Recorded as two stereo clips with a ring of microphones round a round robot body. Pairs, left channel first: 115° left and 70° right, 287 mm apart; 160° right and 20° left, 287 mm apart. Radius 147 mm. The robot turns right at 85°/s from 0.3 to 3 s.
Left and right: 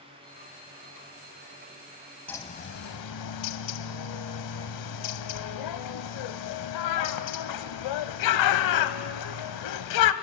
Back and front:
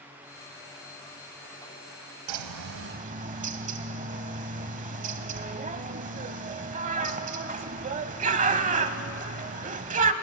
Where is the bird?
25° left, 0.8 m; by 10.1 s 90° left, 0.8 m.